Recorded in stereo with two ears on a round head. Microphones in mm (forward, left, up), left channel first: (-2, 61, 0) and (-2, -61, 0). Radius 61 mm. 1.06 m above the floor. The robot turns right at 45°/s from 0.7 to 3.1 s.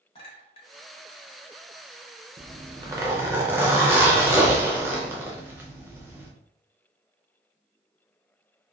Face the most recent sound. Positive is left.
turn(degrees=-20)